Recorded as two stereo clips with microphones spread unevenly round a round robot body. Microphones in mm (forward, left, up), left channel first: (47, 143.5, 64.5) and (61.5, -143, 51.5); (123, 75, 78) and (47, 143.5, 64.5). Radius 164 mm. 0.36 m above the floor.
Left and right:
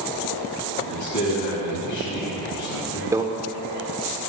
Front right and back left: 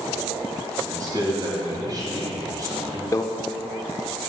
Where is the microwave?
30° right, 0.6 m.